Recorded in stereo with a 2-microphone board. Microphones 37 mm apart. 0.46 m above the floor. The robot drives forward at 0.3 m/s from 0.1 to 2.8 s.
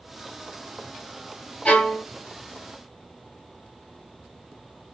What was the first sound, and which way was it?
A violin, 35° left (ahead or behind).